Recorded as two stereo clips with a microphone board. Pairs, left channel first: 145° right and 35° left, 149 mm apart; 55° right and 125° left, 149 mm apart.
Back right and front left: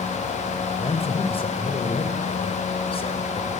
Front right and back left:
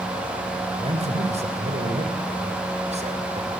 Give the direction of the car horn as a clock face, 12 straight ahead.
No car horn in this recording.